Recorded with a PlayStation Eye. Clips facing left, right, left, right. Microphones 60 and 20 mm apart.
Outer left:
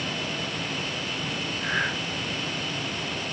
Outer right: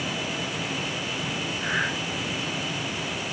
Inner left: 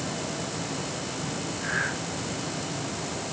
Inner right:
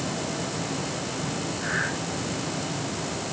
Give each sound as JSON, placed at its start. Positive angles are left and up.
{"t": 1.6, "sound": "breathing", "side_deg": 35, "distance_m": 3.5}